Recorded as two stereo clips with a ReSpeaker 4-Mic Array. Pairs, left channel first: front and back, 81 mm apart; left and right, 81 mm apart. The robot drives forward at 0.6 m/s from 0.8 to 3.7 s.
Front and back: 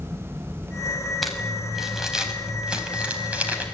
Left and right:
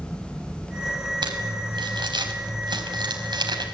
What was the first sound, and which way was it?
Crumpling, 90° right.